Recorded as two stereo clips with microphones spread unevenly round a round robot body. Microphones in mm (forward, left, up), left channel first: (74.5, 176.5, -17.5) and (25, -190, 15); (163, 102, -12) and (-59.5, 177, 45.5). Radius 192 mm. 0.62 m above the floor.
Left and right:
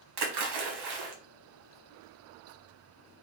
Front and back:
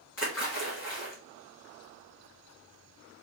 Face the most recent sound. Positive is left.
turn(degrees=-80)